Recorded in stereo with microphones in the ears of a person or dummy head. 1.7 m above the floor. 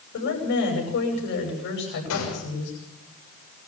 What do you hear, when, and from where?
0.1 s a woman speaking: 60° left (ahead or behind), 9.5 m
2.1 s a gunshot: 85° left, 7.5 m